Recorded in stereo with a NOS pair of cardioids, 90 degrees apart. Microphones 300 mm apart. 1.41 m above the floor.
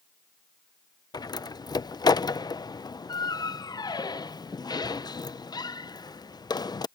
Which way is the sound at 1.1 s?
15° left.